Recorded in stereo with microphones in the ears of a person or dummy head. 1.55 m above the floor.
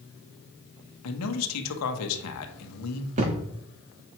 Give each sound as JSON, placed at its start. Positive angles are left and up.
{"t": 1.0, "sound": "a man speaking", "side_deg": 80, "distance_m": 1.2}
{"t": 3.2, "sound": "a thud", "side_deg": -35, "distance_m": 1.3}